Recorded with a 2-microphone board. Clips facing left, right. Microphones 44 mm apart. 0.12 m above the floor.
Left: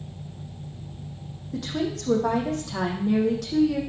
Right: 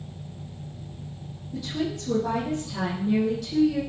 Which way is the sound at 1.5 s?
65° left (ahead or behind).